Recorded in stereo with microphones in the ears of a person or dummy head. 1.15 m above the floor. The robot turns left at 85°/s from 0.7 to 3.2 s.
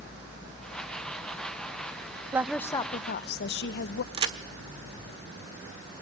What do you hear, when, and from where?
2.3 s a woman speaking: 165° right, 0.8 m; by 4.0 s 120° left, 0.8 m
4.1 s a crack: 35° right (ahead or behind), 1.4 m